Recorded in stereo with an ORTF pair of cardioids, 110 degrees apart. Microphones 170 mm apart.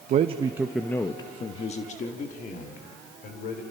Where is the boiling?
I don't hear boiling.